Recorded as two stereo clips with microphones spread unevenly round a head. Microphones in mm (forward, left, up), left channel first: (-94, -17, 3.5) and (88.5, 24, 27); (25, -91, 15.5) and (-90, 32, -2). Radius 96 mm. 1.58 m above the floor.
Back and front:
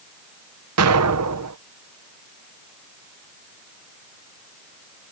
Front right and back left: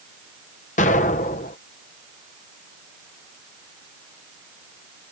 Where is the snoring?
I don't hear snoring.